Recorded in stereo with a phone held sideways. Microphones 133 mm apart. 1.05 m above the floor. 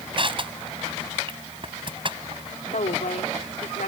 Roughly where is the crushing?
Right.